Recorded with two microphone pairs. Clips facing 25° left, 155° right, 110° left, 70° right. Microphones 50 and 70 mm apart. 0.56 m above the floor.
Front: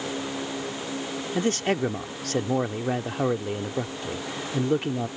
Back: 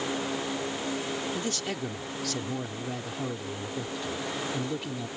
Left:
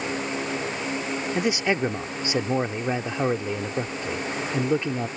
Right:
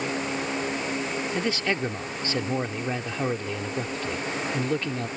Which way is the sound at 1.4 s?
40° left.